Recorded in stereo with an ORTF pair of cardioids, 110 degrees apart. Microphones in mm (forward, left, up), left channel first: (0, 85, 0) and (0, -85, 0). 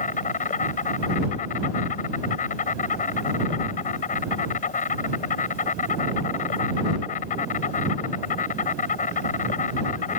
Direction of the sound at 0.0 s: 50° left.